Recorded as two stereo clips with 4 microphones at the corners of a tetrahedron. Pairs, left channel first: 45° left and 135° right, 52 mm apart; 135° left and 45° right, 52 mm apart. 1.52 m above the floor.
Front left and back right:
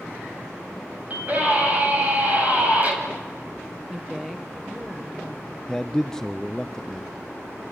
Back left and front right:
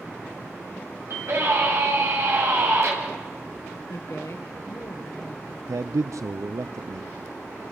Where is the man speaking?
30° right, 0.6 m.